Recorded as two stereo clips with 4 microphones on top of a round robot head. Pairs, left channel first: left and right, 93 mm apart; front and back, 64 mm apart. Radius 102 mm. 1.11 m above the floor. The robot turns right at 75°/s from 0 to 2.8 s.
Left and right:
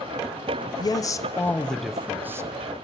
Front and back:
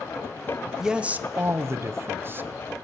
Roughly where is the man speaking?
Left.